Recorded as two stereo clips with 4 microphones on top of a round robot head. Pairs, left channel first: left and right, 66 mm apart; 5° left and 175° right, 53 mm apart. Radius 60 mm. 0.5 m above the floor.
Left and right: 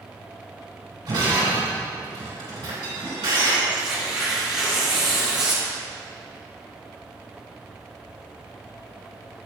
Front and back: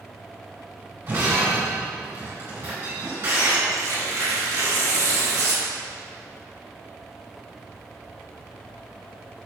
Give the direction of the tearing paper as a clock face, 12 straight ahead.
6 o'clock.